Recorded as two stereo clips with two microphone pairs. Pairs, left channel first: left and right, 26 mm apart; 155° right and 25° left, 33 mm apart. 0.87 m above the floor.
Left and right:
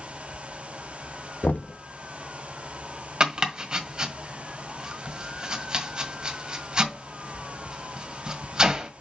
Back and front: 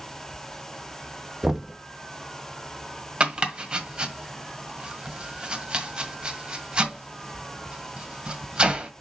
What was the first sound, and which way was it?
Knocking, 95° left.